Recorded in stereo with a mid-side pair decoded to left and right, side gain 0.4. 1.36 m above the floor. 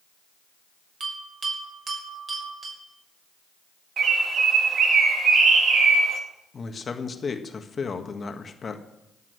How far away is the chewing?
No chewing in this recording.